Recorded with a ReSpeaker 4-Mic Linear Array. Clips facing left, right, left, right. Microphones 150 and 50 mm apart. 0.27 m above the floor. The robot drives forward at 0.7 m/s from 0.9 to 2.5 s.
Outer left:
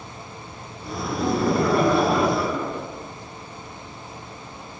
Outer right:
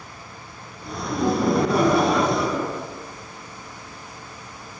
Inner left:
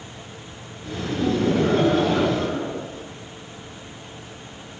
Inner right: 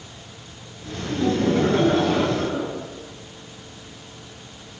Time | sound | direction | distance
1.1 | laughter | 10° right (ahead or behind) | 2 m